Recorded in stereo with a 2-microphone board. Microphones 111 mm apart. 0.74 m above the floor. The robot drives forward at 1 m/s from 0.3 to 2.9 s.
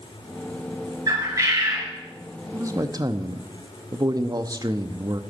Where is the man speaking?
25° right (ahead or behind), 0.9 m; by 5.2 s 40° right (ahead or behind), 0.7 m.